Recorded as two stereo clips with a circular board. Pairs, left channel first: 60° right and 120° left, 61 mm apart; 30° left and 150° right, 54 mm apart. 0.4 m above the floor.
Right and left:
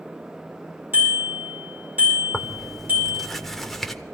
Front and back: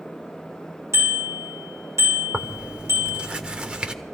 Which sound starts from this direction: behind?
A bicycle bell, at 0.9 s.